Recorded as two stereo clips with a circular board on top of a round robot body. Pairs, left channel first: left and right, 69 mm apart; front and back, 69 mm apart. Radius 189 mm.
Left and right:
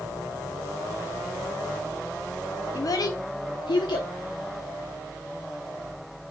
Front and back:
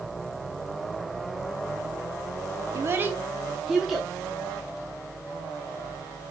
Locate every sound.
2.7 s a child speaking: 130° left, 0.6 m; by 4.1 s 90° left, 1.1 m